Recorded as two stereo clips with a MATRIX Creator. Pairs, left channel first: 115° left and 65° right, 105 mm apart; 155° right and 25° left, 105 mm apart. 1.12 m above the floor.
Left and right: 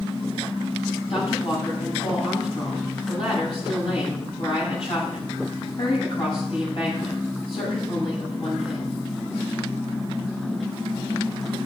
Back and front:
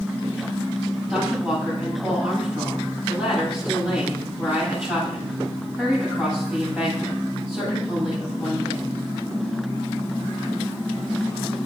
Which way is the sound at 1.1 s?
95° left.